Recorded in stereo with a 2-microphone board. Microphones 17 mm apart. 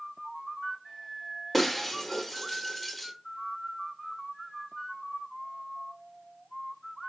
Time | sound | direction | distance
1.5 | breaking glass | 10° left (ahead or behind) | 1.0 m